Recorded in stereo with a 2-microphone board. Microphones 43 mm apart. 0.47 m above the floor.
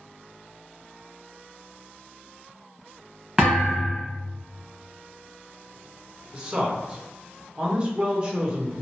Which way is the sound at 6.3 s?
25° right (ahead or behind).